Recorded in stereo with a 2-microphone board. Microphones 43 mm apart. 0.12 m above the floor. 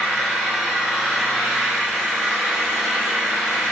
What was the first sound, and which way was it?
An engine running, 20° right (ahead or behind).